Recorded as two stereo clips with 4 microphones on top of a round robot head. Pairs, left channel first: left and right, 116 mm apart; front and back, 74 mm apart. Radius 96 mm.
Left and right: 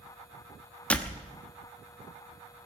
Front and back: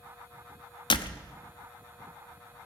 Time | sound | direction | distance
0.9 | a door slam | 10° left | 0.9 m